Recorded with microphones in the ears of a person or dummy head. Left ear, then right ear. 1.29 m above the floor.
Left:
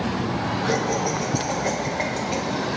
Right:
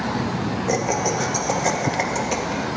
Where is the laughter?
75° right (ahead or behind), 1.7 m.